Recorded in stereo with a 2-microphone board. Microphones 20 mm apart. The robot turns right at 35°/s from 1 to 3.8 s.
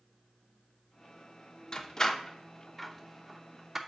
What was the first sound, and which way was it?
A door slam, 30° left (ahead or behind).